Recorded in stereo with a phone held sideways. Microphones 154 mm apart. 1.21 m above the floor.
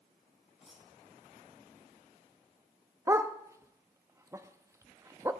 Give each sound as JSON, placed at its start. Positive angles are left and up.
{"t": 0.6, "sound": "cutlery clinking", "side_deg": 0, "distance_m": 2.0}
{"t": 3.1, "sound": "a dog barking", "side_deg": -20, "distance_m": 0.6}